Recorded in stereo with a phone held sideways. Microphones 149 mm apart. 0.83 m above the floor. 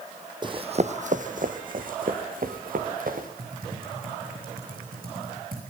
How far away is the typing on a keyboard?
About 8.5 m.